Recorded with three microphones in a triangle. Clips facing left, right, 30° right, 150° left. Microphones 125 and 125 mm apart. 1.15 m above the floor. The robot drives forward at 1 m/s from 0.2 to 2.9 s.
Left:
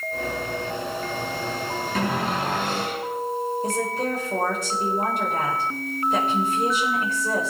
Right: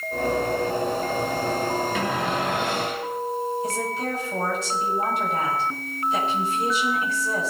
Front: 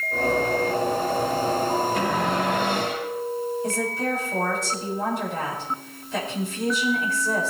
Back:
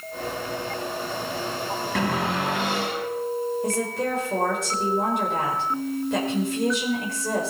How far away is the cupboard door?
About 4 m.